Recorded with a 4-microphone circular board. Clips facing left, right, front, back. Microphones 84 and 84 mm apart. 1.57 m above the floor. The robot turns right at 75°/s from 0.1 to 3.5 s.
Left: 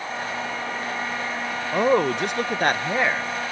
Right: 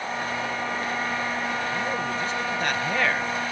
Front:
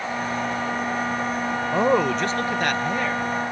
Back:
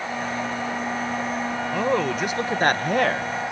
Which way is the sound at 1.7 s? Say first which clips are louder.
Left 8 dB, front 3 dB; 60° left.